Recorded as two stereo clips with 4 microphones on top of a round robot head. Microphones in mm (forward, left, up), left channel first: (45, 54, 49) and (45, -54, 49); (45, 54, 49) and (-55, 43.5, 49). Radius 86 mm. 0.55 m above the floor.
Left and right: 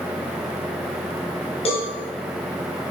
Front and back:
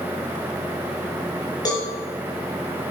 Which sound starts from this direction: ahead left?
A cowbell, at 1.6 s.